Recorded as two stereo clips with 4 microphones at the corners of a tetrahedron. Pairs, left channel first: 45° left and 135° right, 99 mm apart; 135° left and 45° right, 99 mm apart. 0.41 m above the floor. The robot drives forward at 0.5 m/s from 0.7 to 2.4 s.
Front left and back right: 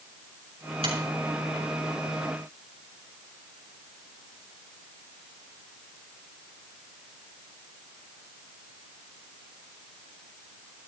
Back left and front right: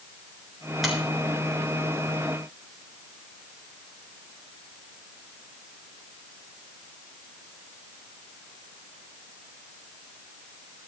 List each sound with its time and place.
0.8 s a finger snap: 135° right, 5.5 m